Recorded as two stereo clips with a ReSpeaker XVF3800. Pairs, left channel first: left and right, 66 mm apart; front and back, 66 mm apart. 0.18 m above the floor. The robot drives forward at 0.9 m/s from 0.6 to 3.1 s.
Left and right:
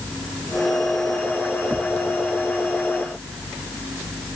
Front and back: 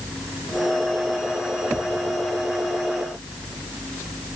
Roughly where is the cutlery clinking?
I don't hear cutlery clinking.